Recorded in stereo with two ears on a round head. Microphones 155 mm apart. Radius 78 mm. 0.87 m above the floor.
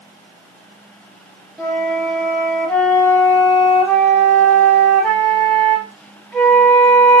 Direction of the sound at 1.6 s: Centre (ahead or behind).